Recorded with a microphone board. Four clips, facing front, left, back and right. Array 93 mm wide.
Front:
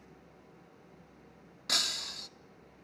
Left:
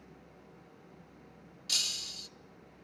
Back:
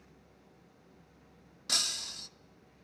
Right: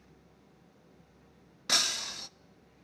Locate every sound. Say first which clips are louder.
1.7 s breaking glass: right 11 dB, front 3 dB; 75° right, 0.7 m